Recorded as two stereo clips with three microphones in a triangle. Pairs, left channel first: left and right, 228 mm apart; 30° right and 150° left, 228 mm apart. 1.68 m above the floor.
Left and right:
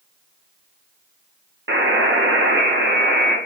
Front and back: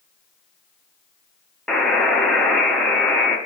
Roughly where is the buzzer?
Behind right.